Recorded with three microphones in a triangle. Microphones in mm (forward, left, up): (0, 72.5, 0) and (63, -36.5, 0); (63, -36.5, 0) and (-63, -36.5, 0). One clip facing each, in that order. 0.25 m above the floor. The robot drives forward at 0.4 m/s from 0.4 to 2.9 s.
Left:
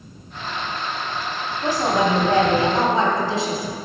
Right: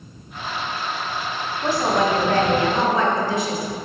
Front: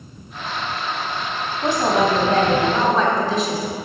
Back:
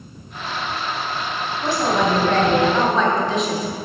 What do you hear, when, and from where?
1.6 s a woman speaking: 50° left, 1.4 m; by 3.8 s 90° left, 1.3 m